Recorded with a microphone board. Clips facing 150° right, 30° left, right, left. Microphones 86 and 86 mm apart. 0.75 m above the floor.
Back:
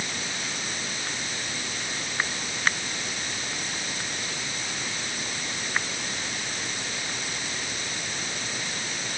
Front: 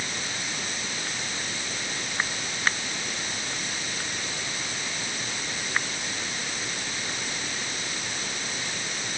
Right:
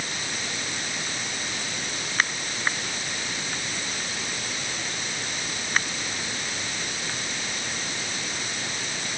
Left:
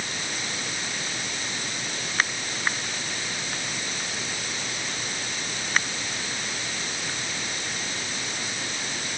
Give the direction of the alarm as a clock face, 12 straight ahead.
No alarm in this recording.